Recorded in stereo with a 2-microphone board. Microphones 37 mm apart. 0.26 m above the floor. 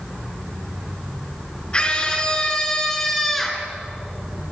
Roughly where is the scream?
Left.